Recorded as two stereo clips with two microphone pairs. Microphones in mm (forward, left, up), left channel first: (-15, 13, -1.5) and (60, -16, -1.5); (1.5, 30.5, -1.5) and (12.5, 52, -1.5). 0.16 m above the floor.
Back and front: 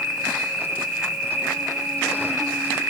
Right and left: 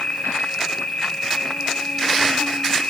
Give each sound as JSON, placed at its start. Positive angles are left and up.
{"t": 0.0, "sound": "an insect", "azimuth_deg": -100, "distance_m": 6.5}